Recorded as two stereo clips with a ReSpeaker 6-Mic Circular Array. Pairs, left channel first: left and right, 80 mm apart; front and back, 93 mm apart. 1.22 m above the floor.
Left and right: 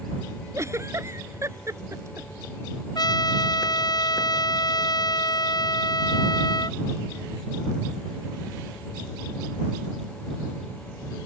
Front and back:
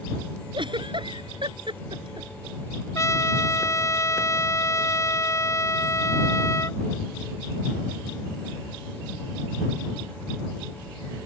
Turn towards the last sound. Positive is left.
turn(degrees=55)